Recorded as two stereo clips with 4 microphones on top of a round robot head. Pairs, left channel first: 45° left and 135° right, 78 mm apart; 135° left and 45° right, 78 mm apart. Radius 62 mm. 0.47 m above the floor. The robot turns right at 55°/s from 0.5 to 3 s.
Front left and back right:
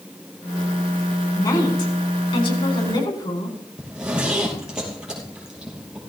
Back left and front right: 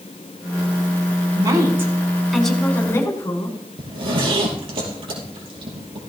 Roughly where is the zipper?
Ahead right.